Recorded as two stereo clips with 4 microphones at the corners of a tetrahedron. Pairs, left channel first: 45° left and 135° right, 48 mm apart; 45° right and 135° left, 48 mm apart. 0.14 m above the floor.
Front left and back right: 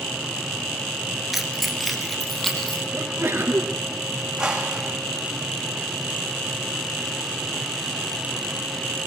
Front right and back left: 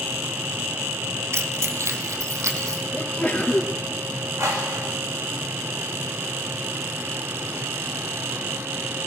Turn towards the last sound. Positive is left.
turn(degrees=150)